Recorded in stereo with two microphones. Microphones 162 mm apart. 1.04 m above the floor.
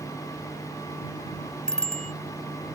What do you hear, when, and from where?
1.7 s a bicycle bell: 5° left (ahead or behind)